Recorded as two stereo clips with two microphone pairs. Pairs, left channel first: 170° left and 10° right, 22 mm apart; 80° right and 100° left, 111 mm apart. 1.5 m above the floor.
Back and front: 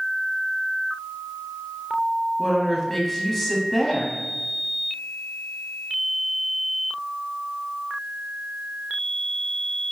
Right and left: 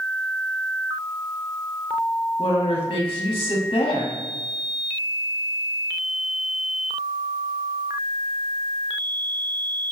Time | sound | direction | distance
2.4 | a woman speaking | 120° right | 0.7 m